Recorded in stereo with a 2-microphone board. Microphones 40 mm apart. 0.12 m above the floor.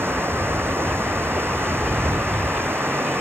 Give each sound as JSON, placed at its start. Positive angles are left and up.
{"t": 0.0, "sound": "running water", "side_deg": -75}